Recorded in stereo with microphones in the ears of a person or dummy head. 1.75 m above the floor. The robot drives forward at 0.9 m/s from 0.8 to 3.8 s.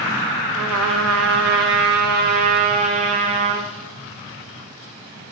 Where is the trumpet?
75° right (ahead or behind), 1.8 m; by 3.7 s 35° right (ahead or behind), 3 m.